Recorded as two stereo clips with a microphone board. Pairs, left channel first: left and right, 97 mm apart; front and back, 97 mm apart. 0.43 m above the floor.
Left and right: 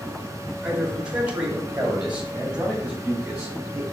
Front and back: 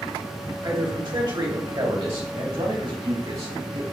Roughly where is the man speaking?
Behind.